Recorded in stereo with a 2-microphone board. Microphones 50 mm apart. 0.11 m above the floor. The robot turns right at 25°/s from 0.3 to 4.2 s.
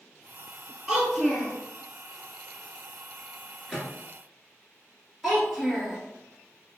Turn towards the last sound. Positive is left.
turn(degrees=-5)  # may be behind; listen again after turning